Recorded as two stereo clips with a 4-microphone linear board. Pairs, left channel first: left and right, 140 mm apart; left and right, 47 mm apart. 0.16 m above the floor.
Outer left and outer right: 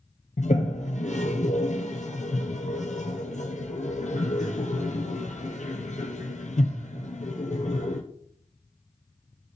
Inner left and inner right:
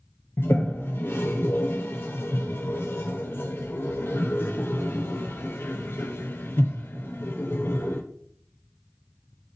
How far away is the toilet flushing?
About 1.3 m.